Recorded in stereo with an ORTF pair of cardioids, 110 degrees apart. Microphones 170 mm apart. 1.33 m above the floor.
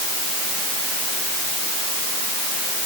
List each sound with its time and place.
Only background noise.